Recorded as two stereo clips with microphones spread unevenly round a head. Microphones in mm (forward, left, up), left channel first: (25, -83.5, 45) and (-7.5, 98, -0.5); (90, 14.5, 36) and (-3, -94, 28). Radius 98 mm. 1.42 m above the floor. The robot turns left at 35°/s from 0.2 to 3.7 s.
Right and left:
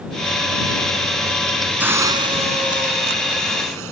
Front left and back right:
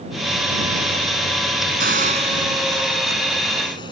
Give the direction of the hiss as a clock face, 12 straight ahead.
6 o'clock.